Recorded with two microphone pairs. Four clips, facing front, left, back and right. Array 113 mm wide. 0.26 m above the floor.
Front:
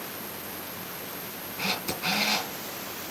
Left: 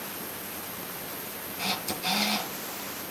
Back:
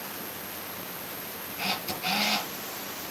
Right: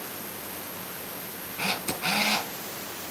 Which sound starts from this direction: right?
A camera shutter, at 1.6 s.